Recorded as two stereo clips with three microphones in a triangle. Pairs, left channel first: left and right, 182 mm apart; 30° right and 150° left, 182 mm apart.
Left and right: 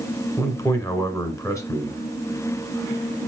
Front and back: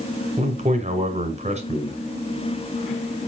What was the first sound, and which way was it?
A man speaking, 150° left.